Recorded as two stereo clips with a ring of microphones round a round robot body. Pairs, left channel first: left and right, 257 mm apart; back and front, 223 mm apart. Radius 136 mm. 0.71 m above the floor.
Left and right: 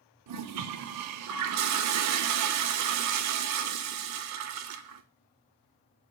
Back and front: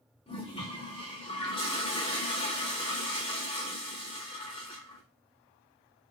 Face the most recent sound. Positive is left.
turn(degrees=-110)